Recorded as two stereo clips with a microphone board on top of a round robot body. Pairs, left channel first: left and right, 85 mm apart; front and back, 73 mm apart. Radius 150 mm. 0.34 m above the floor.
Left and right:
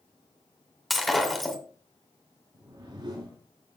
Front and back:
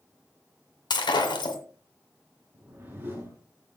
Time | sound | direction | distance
0.9 | breaking glass | straight ahead | 2 m
2.5 | a whoosh | 120° right | 3.5 m